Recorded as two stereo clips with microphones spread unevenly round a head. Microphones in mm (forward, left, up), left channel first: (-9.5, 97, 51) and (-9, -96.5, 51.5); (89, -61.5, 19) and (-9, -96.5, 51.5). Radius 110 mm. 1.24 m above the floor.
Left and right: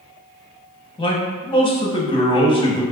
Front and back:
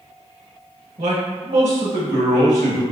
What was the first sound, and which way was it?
A man speaking, 155° left.